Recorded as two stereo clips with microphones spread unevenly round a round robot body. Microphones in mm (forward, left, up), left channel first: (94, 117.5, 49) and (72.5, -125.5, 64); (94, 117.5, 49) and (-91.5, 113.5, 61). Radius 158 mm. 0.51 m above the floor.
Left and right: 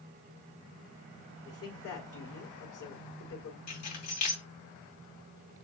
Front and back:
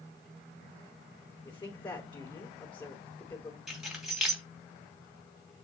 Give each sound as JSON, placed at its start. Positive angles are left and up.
{"t": 1.4, "sound": "a woman speaking", "azimuth_deg": 70, "distance_m": 3.5}
{"t": 3.7, "sound": "keys jangling", "azimuth_deg": 95, "distance_m": 2.5}